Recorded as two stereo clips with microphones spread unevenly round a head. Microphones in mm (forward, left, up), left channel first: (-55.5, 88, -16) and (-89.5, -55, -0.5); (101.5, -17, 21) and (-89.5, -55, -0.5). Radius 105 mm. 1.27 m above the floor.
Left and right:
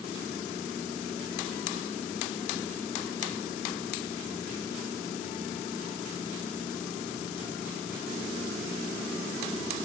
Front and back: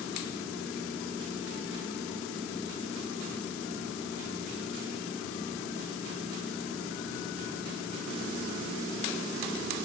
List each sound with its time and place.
Only background noise.